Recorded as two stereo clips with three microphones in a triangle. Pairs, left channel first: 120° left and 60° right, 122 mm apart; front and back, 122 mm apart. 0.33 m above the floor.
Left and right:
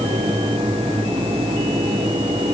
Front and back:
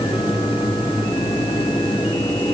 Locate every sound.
Only background noise.